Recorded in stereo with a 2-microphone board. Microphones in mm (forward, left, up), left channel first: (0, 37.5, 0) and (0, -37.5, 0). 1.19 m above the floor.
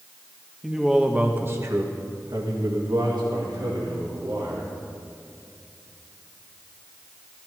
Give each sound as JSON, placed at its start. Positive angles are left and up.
{"t": 0.6, "sound": "a man speaking", "side_deg": 0, "distance_m": 1.6}